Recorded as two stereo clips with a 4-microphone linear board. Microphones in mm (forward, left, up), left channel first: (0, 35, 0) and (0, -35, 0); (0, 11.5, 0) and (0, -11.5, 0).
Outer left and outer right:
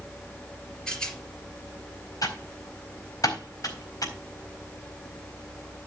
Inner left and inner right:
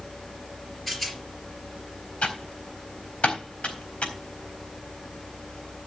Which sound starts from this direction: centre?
A rattle, at 0.9 s.